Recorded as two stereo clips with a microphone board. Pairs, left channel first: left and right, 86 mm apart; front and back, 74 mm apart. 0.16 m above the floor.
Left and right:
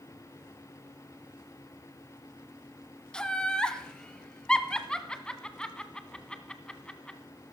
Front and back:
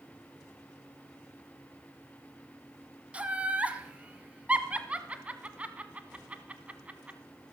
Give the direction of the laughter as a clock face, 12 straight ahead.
7 o'clock.